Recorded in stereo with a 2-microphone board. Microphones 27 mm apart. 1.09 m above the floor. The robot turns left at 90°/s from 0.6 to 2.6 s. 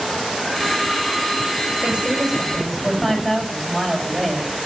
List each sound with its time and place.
1.8 s a woman speaking: 120° right, 6 m; by 4.7 s 170° left, 6 m